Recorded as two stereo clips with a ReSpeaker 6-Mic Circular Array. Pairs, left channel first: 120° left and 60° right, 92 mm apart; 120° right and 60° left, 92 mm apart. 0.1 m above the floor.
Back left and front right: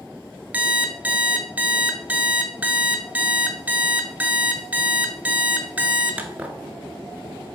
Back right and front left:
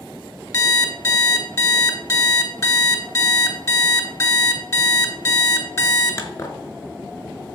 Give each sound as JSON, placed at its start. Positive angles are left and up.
{"t": 0.5, "sound": "an alarm clock", "azimuth_deg": -120, "distance_m": 0.6}